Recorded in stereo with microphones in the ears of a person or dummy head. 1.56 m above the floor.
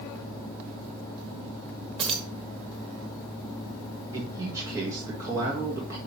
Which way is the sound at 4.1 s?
20° right (ahead or behind).